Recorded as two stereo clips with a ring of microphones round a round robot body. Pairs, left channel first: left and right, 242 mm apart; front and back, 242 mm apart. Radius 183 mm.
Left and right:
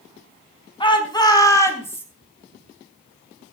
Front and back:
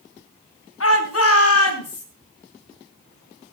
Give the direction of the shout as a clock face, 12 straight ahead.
11 o'clock.